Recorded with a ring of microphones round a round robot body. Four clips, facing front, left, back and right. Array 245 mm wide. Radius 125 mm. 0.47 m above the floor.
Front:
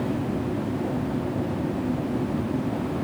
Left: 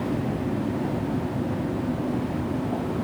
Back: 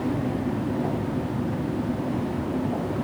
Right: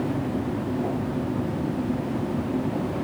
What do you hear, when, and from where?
Only background noise.